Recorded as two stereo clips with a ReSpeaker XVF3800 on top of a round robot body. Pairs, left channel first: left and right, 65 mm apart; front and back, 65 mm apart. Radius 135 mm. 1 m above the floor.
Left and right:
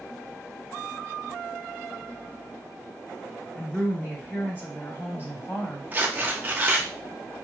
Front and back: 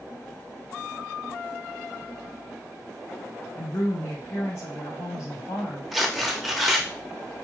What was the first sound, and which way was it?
A woman speaking, 40° left.